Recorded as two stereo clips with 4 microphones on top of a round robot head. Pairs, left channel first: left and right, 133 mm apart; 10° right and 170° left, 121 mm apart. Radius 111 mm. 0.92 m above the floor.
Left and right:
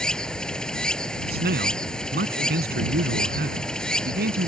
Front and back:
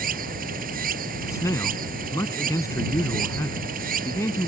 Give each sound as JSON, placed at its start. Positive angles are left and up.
{"t": 0.0, "sound": "running water", "azimuth_deg": 175}
{"t": 1.3, "sound": "a man speaking", "azimuth_deg": -80}